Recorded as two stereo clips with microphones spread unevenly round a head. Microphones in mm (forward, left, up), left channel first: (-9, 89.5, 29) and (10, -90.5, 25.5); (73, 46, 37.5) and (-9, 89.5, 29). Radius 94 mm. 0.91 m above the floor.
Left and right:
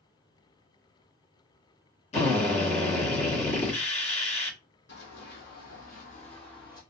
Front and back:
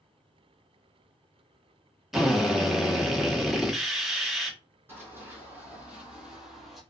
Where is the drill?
75° left, 1.0 m.